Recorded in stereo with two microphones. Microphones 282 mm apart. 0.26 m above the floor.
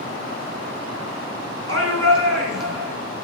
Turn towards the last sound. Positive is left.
turn(degrees=-55)  # may be behind; listen again after turning